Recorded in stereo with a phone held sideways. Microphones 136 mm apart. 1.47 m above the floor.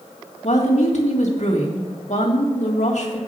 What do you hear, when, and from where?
0.4 s a woman speaking: 60° left (ahead or behind), 1.9 m